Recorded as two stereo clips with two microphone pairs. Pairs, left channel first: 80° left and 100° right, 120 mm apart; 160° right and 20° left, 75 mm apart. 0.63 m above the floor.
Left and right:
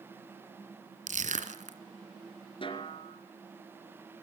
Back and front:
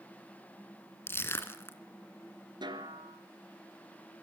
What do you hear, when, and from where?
1.1 s crushing: 100° right, 2 m
2.6 s a snare drum: 35° left, 3 m